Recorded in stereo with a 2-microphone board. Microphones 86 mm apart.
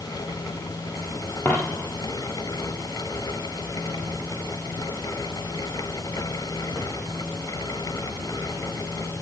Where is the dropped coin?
25° left (ahead or behind), 3 m.